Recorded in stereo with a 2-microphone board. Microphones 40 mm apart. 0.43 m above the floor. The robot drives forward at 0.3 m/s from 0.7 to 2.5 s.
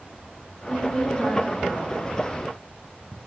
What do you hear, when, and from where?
0.7 s a woman speaking: 30° left (ahead or behind), 0.8 m; by 2.0 s 25° left (ahead or behind), 1.0 m